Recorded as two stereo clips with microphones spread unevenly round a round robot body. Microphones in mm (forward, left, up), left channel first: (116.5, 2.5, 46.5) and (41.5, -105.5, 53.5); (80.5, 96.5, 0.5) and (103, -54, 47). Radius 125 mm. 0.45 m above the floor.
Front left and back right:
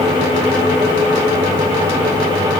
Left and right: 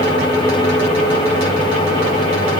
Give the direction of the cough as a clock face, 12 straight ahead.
I don't hear a cough.